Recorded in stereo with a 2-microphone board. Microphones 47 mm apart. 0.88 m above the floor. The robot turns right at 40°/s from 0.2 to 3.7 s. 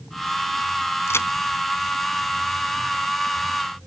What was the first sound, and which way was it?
A crack, 70° left (ahead or behind).